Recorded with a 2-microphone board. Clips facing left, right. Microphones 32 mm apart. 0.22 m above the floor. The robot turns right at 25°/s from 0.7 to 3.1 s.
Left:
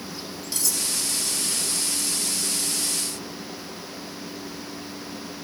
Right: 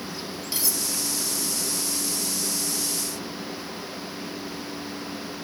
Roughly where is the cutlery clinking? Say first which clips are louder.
Left 1 dB; centre.